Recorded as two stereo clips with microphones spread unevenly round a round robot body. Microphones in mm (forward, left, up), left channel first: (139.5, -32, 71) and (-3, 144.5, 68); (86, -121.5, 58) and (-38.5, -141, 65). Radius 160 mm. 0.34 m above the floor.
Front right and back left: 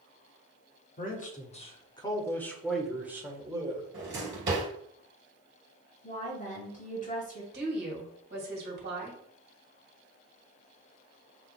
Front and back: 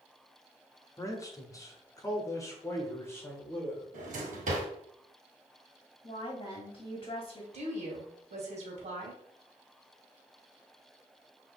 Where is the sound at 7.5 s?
170° left, 1.8 m.